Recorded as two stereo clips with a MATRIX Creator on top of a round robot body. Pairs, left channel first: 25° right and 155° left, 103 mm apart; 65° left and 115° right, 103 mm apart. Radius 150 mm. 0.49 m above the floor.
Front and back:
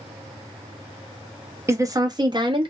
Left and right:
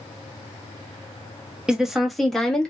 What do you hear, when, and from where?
1.7 s a woman speaking: 170° left, 0.9 m; by 2.7 s 150° left, 1.1 m